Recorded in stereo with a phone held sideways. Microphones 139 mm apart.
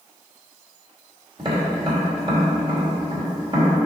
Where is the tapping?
40° right (ahead or behind), 2 m.